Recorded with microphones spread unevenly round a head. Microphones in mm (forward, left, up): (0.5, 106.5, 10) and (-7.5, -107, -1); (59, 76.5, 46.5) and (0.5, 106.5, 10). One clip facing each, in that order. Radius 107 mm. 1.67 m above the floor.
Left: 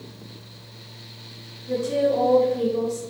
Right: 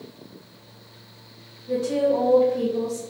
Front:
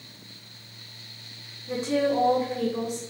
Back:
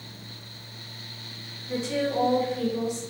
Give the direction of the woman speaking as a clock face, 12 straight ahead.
12 o'clock.